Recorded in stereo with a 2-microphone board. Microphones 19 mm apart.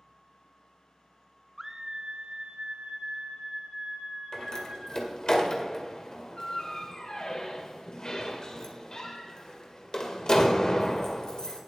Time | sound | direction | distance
1.6 | a scream | 15° right (ahead or behind) | 0.6 m
4.3 | a door slam | 40° left (ahead or behind) | 1.8 m